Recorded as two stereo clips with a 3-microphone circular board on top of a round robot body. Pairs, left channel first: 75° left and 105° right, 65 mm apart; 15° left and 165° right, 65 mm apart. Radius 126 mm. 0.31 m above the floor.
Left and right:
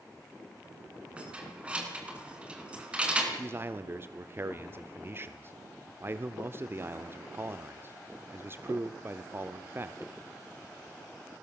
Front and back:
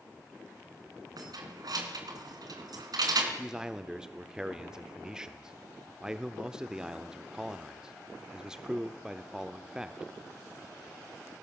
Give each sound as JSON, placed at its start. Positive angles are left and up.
{"t": 1.2, "sound": "keys jangling", "azimuth_deg": 180, "distance_m": 4.0}
{"t": 3.4, "sound": "a man speaking", "azimuth_deg": -90, "distance_m": 1.0}